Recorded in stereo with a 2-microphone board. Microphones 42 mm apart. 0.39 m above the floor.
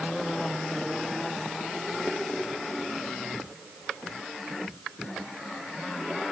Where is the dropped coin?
No dropped coin in this recording.